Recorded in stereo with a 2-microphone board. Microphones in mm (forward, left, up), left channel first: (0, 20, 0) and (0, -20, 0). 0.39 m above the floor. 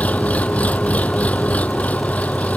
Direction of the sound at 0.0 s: 35° left (ahead or behind).